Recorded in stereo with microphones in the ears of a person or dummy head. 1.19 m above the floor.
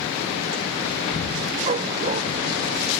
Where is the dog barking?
35° right (ahead or behind).